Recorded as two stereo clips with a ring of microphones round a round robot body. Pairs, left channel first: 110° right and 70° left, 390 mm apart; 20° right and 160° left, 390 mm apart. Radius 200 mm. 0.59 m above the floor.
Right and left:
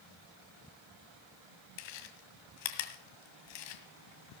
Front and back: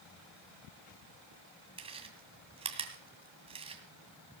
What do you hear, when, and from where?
1.8 s chewing: 125° right, 2.0 m